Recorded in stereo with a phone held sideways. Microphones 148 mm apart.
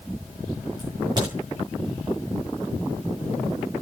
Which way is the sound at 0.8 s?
30° right (ahead or behind).